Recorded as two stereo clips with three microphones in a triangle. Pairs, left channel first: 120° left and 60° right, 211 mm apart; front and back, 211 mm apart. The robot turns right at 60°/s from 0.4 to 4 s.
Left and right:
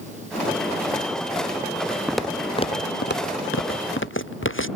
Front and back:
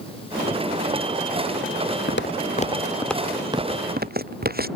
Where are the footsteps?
25° left; by 4.7 s 135° left.